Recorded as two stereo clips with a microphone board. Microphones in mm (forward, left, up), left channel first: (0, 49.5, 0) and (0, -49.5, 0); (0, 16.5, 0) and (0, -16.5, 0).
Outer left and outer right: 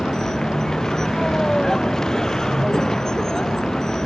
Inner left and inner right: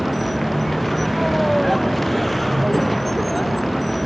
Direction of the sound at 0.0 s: 5° left (ahead or behind).